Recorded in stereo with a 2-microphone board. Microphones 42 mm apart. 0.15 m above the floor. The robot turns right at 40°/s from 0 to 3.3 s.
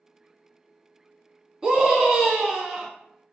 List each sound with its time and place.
1.6 s a scream: 20° right (ahead or behind), 1.1 m; by 2.9 s 15° right (ahead or behind), 1.1 m